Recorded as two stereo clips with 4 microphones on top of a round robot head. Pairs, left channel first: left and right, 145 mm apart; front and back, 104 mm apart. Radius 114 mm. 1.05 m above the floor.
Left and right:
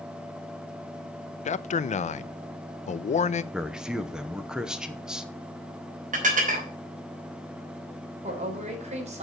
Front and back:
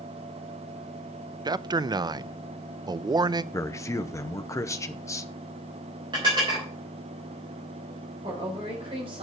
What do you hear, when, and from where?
1.4 s a man speaking: 130° left, 0.6 m
3.5 s a man speaking: 10° right, 0.8 m
6.1 s dishes clattering: 120° right, 4 m
8.2 s a woman speaking: 130° right, 3.5 m